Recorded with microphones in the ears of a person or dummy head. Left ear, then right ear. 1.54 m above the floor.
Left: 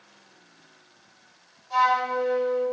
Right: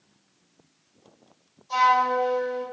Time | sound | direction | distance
1.7 | a flute | 40° right (ahead or behind) | 1.8 m